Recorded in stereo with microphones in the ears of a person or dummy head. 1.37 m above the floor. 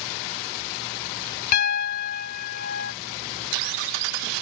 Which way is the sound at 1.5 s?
55° left (ahead or behind).